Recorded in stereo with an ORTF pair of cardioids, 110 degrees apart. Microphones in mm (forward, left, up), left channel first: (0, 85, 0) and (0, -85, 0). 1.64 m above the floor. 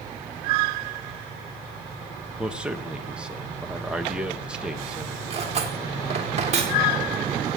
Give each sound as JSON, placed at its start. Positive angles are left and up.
{"t": 2.4, "sound": "a man speaking", "azimuth_deg": -5, "distance_m": 2.5}
{"t": 5.3, "sound": "cutlery clinking", "azimuth_deg": -40, "distance_m": 3.0}